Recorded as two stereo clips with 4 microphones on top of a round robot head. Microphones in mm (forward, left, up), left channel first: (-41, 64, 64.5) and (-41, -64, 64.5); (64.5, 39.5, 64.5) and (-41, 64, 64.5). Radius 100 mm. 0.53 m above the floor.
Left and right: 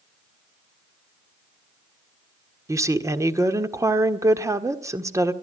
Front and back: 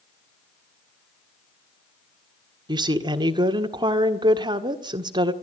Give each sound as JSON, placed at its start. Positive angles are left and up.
{"t": 2.7, "sound": "a woman speaking", "azimuth_deg": -150, "distance_m": 1.7}